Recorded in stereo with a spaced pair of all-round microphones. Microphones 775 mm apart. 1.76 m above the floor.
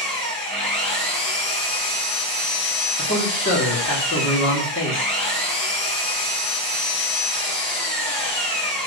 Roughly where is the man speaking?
Centre.